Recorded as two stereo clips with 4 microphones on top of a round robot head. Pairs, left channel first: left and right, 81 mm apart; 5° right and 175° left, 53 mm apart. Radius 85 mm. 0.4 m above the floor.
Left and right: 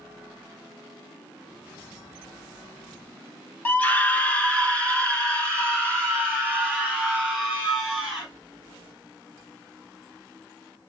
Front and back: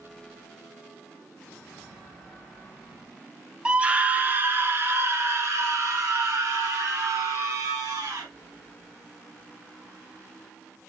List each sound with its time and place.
3.6 s a scream: 125° left, 1.0 m; by 8.3 s 175° left, 3 m